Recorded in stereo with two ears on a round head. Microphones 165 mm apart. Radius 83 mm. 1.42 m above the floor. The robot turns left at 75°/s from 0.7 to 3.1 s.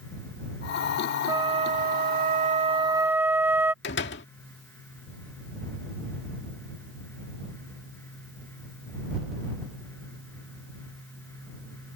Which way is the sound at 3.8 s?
65° left (ahead or behind).